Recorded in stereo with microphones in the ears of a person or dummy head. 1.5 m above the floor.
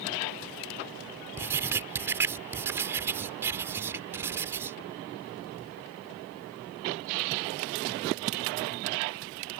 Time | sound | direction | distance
1.4 | writing | 15° right (ahead or behind) | ?